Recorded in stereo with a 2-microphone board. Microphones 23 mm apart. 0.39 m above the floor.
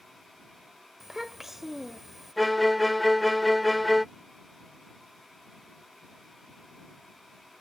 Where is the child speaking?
15° right (ahead or behind).